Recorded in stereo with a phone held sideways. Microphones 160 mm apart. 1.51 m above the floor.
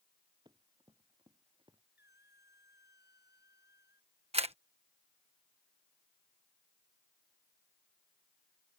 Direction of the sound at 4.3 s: 40° right (ahead or behind).